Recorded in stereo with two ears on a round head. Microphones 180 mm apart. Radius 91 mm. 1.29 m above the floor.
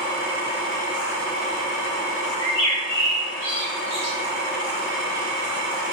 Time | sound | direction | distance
2.4 | a bird | 35° right (ahead or behind) | 4 m